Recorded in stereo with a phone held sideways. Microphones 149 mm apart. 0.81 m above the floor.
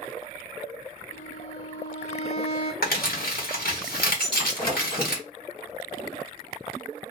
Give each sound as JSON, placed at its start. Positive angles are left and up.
{"t": 1.1, "sound": "a violin", "side_deg": 50, "distance_m": 0.7}
{"t": 2.8, "sound": "crumpling", "side_deg": 80, "distance_m": 1.5}
{"t": 4.2, "sound": "breaking glass", "side_deg": 35, "distance_m": 1.7}